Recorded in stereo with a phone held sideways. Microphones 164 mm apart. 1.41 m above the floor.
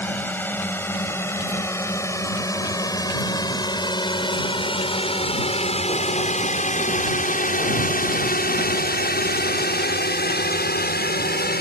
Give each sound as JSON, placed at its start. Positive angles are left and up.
{"t": 0.0, "sound": "a drone", "side_deg": 10}